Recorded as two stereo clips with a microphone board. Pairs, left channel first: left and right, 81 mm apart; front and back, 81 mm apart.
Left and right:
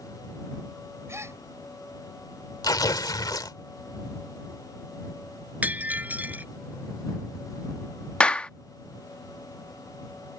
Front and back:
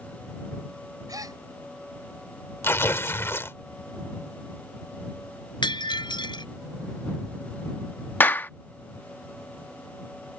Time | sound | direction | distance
1.1 | a gasp | 145° right | ?
2.6 | tearing paper | 60° left | ?
5.6 | breaking glass | 20° right | ?
8.2 | a clap | 30° left | ?